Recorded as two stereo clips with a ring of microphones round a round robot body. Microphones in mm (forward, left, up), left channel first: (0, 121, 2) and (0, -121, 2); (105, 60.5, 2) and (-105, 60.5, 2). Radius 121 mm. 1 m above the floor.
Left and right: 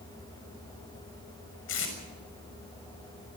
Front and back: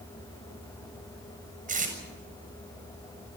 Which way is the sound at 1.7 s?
130° left.